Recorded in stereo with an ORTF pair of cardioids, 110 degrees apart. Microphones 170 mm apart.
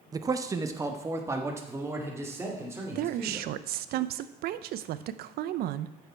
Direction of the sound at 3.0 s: 70° right.